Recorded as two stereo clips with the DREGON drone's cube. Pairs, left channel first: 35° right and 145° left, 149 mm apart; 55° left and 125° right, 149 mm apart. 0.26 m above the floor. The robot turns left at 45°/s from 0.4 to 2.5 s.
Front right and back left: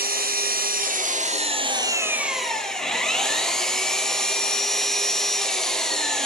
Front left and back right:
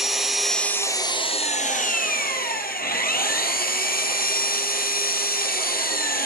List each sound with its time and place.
0.0 s an engine running: 145° left, 2.5 m; by 6.3 s 55° left, 2.5 m